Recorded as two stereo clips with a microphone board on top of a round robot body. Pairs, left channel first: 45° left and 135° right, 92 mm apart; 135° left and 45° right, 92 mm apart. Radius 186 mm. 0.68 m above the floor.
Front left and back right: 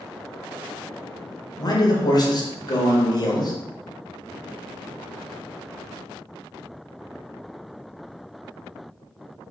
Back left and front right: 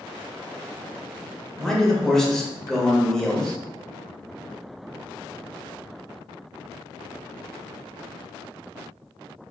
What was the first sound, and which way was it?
A man speaking, 55° left.